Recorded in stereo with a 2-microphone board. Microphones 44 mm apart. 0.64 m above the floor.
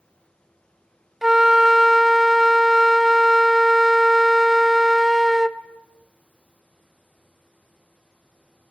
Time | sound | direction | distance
1.2 | a flute | 10° right (ahead or behind) | 0.5 m